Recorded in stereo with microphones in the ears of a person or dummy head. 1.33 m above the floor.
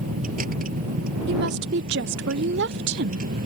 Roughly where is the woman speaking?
Right.